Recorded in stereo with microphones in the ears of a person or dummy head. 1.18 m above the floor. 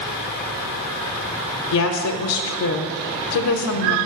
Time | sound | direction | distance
1.7 | a woman speaking | 80° left | 0.5 m